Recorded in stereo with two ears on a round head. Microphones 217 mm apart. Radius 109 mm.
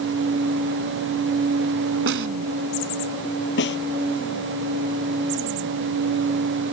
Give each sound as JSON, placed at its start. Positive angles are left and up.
{"t": 2.1, "sound": "a snare drum", "side_deg": -55}
{"t": 3.6, "sound": "a snare drum", "side_deg": 45}